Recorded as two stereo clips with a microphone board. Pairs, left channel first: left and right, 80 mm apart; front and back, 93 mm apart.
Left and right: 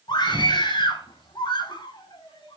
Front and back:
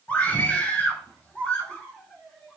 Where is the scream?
75° left, 4.5 m; by 2.6 s 80° left, 6 m.